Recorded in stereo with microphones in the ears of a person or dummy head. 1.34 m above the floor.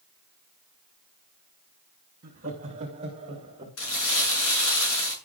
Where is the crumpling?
65° left (ahead or behind), 7 m.